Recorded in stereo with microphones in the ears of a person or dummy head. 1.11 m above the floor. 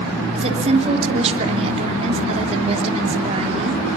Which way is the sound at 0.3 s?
40° right (ahead or behind).